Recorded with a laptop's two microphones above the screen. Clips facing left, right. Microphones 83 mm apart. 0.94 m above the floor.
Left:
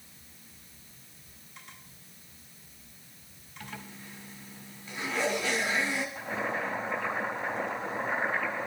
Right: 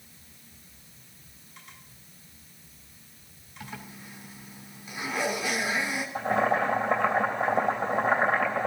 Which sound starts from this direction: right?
Boiling, at 6.2 s.